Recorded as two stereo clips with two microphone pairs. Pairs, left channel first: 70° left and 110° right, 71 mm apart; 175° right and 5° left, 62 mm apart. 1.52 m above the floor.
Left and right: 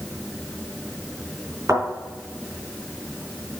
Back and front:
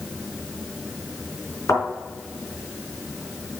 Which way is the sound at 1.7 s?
145° right.